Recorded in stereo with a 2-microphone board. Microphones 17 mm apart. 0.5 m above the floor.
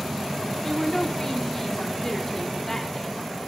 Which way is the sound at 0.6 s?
20° left (ahead or behind).